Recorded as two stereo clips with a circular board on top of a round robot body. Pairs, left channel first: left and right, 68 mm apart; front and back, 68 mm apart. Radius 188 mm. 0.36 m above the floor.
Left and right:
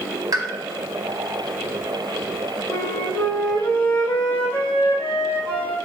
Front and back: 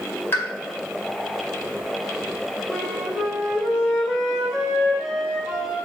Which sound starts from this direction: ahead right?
A pop, at 0.3 s.